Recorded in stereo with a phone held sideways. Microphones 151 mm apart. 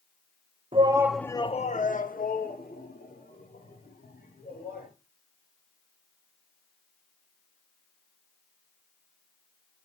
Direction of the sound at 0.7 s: 40° right (ahead or behind).